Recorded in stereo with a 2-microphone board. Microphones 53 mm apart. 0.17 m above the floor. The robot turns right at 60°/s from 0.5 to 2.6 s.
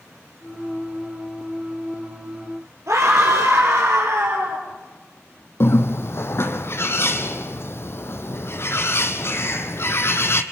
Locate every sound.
2.9 s a scream: 65° right (ahead or behind), 4.5 m
5.6 s a bird: 50° left (ahead or behind), 1.2 m